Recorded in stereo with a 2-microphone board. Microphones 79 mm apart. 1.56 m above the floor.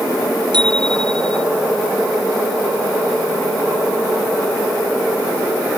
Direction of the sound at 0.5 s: 80° right.